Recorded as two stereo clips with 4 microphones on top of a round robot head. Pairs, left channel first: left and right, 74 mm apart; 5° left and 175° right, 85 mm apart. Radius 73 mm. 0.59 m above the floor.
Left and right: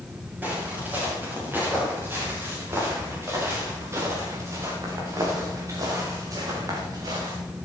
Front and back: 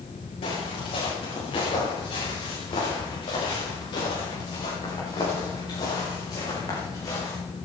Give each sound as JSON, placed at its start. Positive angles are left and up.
{"t": 0.4, "sound": "footsteps", "azimuth_deg": -25, "distance_m": 7.0}